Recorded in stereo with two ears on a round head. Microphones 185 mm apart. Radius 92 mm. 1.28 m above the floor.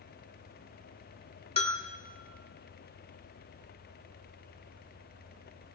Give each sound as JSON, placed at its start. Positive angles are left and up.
{"t": 1.6, "sound": "a bell", "side_deg": 30, "distance_m": 1.3}